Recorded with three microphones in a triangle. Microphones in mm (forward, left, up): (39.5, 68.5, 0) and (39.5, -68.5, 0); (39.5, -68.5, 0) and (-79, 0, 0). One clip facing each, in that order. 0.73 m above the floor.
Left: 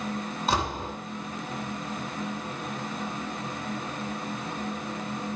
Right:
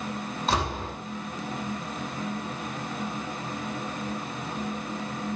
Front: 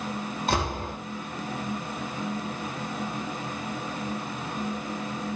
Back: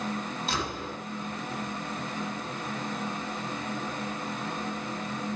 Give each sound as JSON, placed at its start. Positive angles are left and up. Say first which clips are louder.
{"t": 0.5, "sound": "a door slam", "louder": "even, front 8 dB", "azimuth_deg": 0, "distance_m": 4.0}